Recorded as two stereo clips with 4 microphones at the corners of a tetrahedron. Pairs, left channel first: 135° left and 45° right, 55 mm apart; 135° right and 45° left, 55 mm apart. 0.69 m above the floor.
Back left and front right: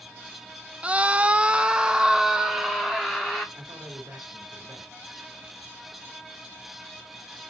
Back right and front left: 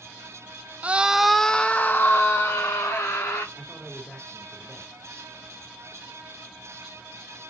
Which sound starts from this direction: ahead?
A scream, at 0.8 s.